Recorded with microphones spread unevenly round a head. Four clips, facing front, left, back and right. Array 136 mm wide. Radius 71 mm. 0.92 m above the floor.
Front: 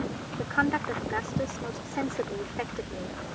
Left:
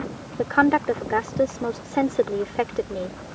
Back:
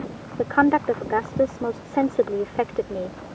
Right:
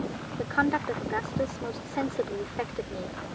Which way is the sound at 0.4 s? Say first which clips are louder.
Left 8 dB, back 9 dB; 145° left.